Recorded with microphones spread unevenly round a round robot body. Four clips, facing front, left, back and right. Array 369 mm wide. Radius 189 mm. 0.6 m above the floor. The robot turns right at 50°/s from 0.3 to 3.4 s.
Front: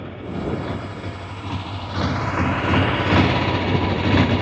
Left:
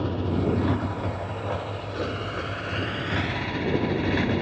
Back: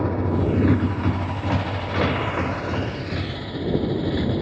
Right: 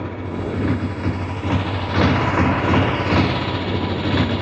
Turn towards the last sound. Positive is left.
turn(degrees=-30)